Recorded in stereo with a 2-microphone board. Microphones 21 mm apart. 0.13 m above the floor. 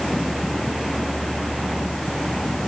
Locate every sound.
Only background noise.